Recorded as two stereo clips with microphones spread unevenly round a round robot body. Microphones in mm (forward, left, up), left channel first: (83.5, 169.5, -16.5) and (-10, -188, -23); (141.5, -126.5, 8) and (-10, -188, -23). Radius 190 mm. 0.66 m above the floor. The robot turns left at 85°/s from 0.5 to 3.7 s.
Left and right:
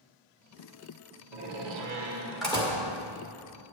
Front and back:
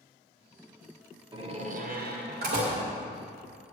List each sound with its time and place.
1.3 s a door slam: 100° right, 1.6 m; by 2.8 s 135° left, 1.6 m